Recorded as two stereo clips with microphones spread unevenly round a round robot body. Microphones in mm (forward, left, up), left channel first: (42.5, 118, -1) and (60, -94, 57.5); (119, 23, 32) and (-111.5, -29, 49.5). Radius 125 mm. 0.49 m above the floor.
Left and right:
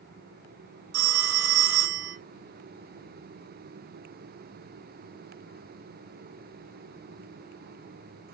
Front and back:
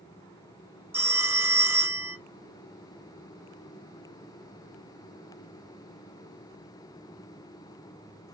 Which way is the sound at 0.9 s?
85° right.